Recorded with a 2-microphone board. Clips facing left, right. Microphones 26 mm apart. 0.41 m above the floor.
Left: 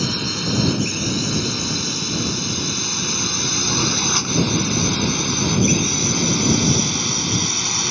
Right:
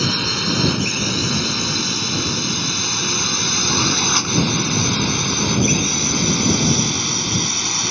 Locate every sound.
0.0 s a drone: 15° right (ahead or behind); by 7.9 s 5° left (ahead or behind)